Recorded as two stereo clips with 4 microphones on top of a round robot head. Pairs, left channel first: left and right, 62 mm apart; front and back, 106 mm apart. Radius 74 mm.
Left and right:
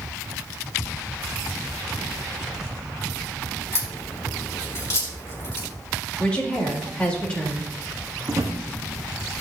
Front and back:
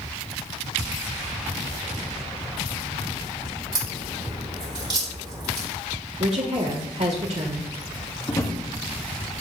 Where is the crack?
135° left, 4 m.